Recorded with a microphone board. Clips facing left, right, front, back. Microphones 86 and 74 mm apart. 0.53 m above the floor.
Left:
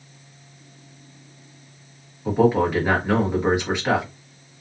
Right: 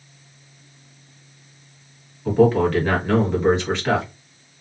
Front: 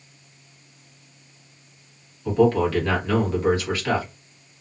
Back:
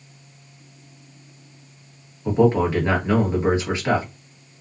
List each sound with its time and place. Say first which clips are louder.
2.2 s a man speaking: right 2 dB, back 1 dB; 155° left, 1.1 m